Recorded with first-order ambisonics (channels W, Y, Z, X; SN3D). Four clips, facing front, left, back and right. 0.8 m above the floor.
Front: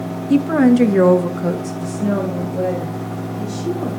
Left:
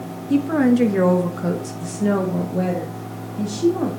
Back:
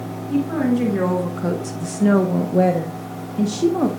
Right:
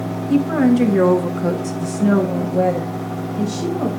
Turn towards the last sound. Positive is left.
turn(degrees=-175)